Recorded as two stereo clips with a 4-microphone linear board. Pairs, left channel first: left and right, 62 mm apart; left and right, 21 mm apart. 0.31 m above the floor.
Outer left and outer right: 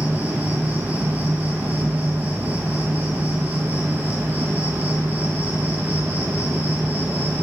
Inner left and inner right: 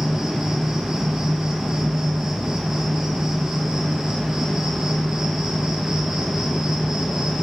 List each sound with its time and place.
0.0 s an insect: 30° right (ahead or behind), 0.9 m